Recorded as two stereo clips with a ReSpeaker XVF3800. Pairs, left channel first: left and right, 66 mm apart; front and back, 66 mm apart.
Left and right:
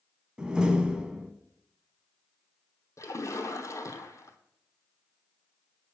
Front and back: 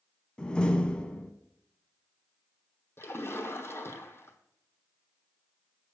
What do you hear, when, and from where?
0.4 s a door slam: 45° right, 0.7 m
3.0 s a splash: 50° left, 1.0 m